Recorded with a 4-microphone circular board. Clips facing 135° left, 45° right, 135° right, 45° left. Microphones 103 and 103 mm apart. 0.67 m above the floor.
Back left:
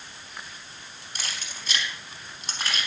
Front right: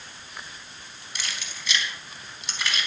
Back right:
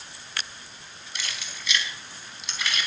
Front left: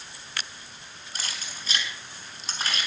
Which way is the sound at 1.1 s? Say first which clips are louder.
Front right 1 dB, even; 90° left.